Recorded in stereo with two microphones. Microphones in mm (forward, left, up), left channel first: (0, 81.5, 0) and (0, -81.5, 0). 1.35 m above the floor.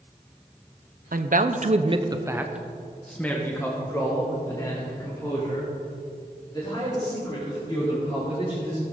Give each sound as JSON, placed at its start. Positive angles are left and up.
{"t": 1.1, "sound": "a man speaking", "side_deg": -60, "distance_m": 0.8}